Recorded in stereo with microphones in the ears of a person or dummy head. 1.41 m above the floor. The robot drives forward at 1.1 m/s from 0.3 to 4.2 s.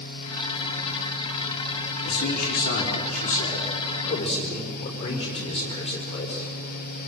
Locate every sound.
2.0 s a man speaking: 60° left (ahead or behind), 4 m; by 6.5 s 35° left (ahead or behind), 5.5 m